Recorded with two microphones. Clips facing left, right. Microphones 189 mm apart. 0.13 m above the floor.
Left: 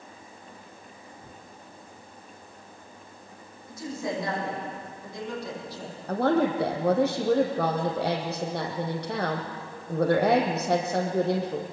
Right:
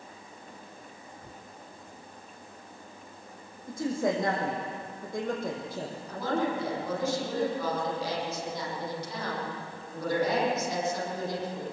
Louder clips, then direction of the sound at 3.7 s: Right 4 dB; 50° right (ahead or behind).